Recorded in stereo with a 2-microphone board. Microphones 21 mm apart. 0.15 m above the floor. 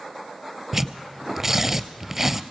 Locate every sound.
0.7 s tearing paper: 15° right (ahead or behind), 0.5 m